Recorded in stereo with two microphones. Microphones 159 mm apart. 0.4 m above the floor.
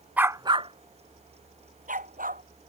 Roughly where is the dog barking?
Centre.